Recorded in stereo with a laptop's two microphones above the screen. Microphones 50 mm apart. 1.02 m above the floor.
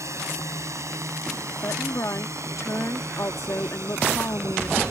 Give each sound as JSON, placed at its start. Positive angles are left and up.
{"t": 0.0, "sound": "a drone", "side_deg": -70}
{"t": 1.6, "sound": "a woman speaking", "side_deg": 70}